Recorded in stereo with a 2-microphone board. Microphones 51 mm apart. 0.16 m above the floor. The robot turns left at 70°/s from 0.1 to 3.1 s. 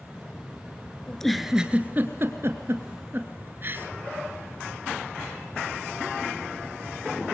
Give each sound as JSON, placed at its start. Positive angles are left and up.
{"t": 1.1, "sound": "a giggle", "side_deg": 15, "distance_m": 1.7}